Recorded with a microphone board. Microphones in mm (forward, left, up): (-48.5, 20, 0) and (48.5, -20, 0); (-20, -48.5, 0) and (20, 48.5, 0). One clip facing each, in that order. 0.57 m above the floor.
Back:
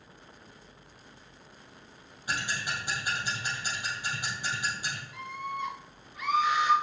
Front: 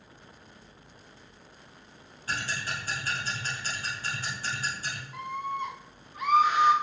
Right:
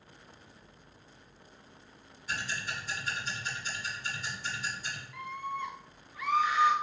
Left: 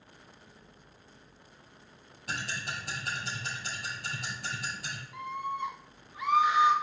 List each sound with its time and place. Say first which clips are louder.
2.3 s ticking: even, even; 80° left, 3.5 m
5.1 s a scream: front 5 dB, left 3 dB; 5° left, 0.9 m